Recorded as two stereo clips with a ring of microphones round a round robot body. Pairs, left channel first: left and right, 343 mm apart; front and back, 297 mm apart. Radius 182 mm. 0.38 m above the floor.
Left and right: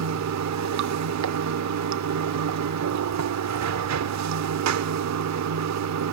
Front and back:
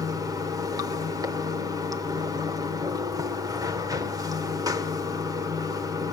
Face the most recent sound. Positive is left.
turn(degrees=-105)